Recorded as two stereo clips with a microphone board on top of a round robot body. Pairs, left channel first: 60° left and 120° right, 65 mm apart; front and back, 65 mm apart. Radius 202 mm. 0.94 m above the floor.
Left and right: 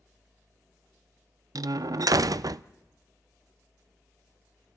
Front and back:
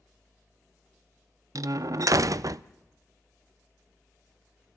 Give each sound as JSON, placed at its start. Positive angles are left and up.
{"t": 1.6, "sound": "a door slam", "azimuth_deg": -145, "distance_m": 0.5}